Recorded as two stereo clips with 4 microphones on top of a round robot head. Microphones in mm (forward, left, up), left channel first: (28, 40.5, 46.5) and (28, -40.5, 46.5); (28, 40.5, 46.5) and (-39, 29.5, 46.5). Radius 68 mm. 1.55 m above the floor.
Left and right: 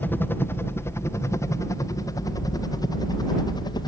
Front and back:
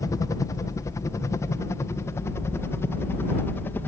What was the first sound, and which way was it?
A helicopter, 30° left.